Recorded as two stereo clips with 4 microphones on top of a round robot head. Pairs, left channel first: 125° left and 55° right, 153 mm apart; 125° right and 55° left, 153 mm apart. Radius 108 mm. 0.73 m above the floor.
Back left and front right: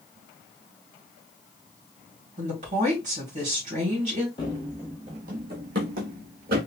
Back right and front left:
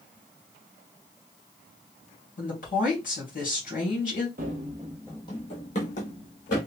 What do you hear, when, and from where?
2.4 s a woman speaking: 95° right, 2.5 m
4.4 s running footsteps: 70° left, 0.9 m; by 6.6 s 85° right, 2 m